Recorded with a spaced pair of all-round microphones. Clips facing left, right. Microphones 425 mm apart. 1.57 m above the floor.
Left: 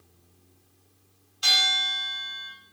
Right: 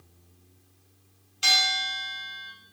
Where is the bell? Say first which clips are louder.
Right 2 dB; 40° right (ahead or behind), 0.8 m.